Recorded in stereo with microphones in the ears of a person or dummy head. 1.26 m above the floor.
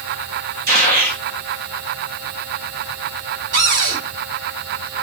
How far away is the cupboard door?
About 5.5 m.